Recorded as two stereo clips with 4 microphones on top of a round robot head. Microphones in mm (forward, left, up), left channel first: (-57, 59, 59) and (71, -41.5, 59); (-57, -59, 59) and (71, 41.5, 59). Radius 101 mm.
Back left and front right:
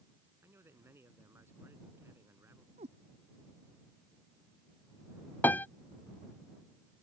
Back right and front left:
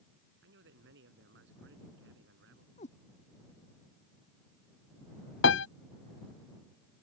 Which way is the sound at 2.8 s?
95° right.